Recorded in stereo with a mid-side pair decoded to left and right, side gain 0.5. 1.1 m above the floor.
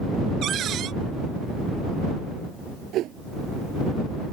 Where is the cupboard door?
60° right.